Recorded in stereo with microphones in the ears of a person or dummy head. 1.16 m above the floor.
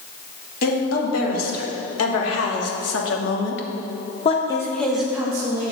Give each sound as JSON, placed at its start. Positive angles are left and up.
{"t": 0.6, "sound": "a woman speaking", "side_deg": 75, "distance_m": 2.5}